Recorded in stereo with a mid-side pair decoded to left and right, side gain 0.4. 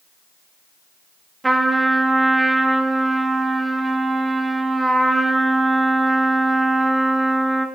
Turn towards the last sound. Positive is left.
turn(degrees=-20)